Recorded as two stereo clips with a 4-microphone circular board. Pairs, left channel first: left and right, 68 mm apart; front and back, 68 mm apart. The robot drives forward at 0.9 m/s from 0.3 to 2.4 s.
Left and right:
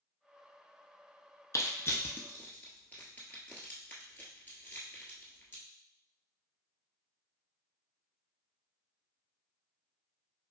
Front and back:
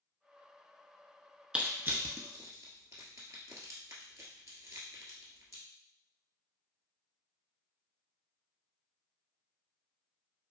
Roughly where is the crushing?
Left.